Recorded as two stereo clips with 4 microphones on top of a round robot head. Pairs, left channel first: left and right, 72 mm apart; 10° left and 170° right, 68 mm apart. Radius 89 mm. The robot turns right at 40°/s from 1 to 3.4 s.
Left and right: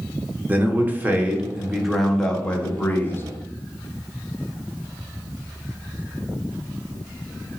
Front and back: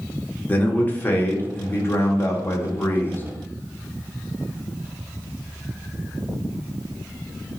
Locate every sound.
0.5 s a man speaking: 35° right, 1.0 m; by 3.2 s 50° left, 1.0 m